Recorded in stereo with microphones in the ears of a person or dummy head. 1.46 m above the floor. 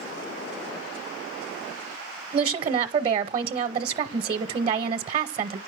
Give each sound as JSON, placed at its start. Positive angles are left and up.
{"t": 2.3, "sound": "a woman speaking", "side_deg": -40, "distance_m": 0.6}